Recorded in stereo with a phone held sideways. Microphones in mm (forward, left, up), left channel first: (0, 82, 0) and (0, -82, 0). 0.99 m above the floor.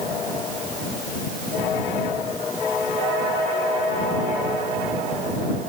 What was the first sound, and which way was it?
Only background noise.